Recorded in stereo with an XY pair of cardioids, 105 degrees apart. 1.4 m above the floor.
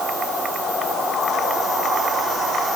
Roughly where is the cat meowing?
I don't hear a cat meowing.